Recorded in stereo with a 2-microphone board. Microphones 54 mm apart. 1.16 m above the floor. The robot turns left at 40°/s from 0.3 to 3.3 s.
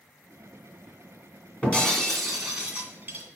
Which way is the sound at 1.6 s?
25° left.